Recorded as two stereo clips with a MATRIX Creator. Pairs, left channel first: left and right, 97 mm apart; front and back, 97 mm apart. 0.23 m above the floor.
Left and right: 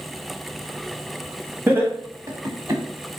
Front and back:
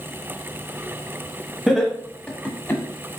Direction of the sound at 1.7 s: 100° right.